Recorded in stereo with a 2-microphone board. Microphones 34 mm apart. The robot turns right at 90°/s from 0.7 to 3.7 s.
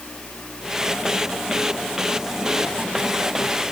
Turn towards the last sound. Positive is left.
No sound to turn to.